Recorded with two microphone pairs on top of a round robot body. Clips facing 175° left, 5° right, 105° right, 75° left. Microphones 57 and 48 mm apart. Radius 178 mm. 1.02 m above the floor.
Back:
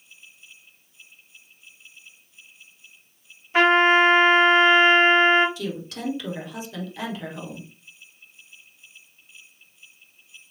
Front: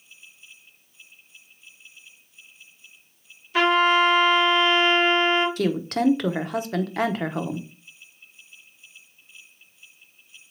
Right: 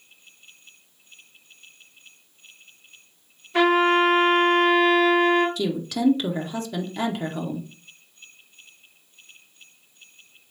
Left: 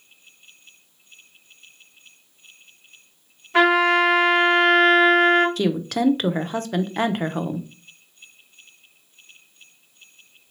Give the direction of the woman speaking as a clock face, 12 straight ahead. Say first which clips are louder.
Front 8 dB, left 3 dB; 11 o'clock.